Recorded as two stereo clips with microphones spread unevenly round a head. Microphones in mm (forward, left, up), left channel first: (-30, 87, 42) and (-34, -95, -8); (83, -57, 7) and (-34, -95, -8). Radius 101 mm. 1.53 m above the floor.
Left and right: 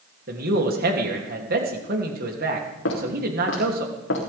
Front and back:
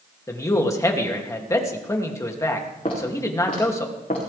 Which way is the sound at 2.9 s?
75° left.